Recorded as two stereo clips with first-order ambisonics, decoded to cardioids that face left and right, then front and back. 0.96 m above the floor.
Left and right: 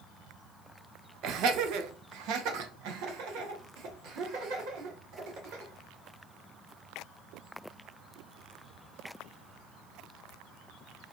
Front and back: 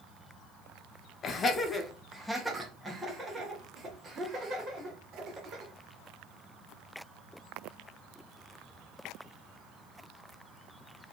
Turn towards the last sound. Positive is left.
turn(degrees=-115)